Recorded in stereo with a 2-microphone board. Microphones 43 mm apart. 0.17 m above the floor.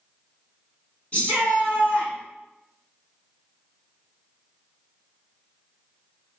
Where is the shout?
30° left (ahead or behind), 1.5 m.